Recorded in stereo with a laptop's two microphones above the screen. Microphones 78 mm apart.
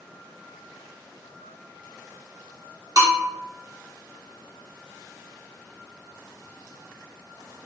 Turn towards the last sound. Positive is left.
turn(degrees=-50)  # may be behind; listen again after turning